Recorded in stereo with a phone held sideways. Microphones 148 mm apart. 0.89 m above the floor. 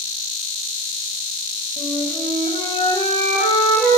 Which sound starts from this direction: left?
A flute, at 1.8 s.